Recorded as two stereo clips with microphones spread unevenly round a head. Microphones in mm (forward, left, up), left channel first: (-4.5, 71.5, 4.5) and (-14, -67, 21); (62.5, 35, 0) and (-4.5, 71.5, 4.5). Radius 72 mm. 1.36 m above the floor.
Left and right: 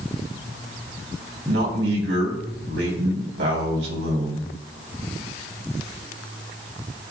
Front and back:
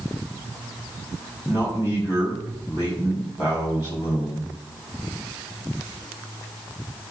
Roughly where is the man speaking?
Right.